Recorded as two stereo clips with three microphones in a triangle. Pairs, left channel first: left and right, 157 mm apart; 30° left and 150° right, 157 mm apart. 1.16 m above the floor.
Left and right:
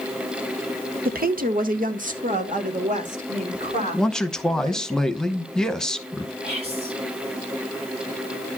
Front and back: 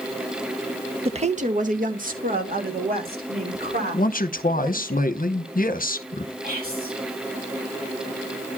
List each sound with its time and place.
1.1 s a woman speaking: 100° right, 0.9 m; by 4.9 s 130° right, 4.5 m
3.9 s a man speaking: 5° left, 0.8 m
6.4 s whispering: 140° right, 6 m